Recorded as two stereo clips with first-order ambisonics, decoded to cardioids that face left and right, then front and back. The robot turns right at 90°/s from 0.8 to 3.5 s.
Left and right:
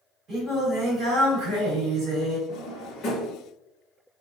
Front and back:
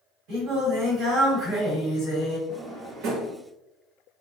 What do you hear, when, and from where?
0.3 s singing: 155° right, 1.4 m; by 2.4 s 10° right, 1.4 m
2.5 s a drawer: 90° left, 0.7 m; by 3.4 s 170° left, 0.7 m